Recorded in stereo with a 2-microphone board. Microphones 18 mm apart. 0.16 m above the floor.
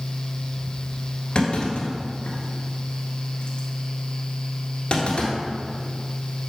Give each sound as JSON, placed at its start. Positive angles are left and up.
{"t": 1.4, "sound": "a clunk", "side_deg": 55, "distance_m": 1.6}